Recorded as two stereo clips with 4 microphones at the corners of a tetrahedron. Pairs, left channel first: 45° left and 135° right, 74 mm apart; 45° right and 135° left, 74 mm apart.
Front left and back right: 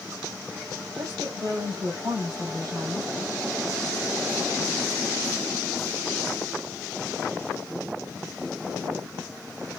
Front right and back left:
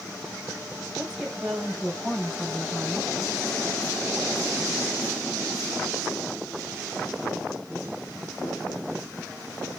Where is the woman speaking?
145° right, 2.5 m.